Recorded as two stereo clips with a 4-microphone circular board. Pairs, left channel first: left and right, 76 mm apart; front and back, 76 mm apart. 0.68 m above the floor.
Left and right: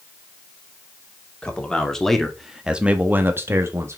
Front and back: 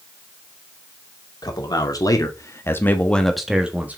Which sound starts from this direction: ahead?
A man speaking, at 1.4 s.